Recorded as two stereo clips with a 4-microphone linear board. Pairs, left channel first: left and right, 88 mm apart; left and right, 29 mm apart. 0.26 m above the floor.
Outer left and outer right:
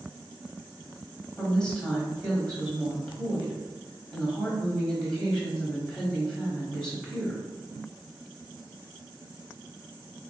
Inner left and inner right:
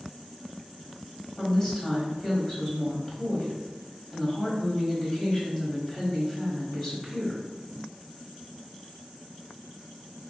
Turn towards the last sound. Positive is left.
turn(degrees=10)  # may be behind; listen again after turning